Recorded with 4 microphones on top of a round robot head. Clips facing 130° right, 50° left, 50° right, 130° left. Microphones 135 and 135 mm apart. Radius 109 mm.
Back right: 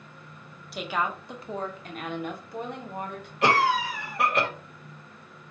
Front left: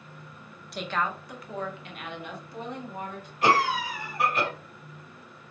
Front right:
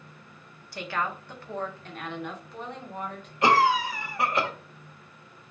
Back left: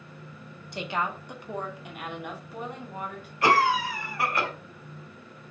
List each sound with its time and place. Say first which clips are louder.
0.7 s a woman speaking: back right 1 dB, back left 1 dB; 145° left, 0.8 m; by 3.3 s 145° right, 1.6 m
3.4 s a cough: back right 1 dB, front right 1 dB; 120° right, 1.8 m